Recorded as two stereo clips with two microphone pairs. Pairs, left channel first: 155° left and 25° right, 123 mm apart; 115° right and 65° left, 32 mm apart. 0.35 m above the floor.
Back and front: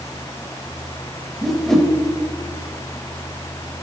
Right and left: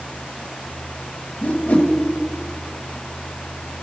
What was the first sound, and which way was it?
A whoosh, 120° right.